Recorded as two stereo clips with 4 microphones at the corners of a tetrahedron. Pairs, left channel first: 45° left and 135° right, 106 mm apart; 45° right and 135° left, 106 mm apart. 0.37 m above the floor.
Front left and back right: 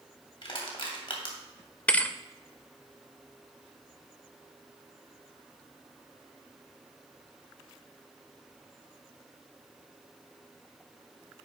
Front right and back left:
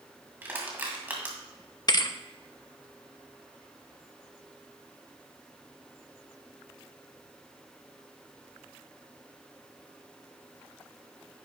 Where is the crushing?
65° left, 2 m.